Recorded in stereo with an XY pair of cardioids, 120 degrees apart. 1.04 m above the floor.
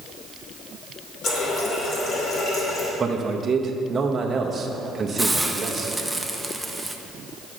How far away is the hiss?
About 0.6 m.